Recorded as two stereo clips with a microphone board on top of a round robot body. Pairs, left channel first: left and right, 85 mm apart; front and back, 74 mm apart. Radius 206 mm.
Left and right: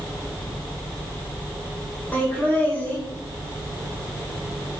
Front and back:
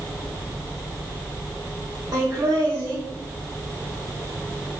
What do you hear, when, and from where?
2.1 s laughter: 155° left, 2.5 m